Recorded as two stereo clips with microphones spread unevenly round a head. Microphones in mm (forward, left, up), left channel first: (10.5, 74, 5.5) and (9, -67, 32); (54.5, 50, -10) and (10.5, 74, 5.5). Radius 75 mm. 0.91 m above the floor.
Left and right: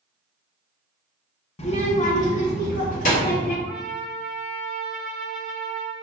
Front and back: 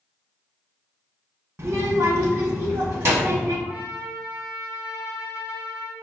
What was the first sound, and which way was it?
A child speaking, 110° left.